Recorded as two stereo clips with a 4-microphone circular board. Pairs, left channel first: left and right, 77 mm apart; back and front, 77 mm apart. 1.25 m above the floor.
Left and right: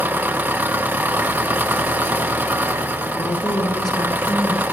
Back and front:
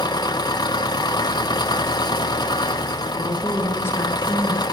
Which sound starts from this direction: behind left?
A woman speaking, at 3.2 s.